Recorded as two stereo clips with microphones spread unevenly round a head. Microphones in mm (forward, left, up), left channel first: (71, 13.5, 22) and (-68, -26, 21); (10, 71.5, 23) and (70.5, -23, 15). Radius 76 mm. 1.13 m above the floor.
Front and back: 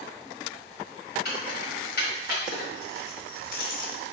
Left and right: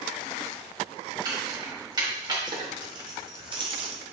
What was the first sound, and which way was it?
Keys jangling, 5° right.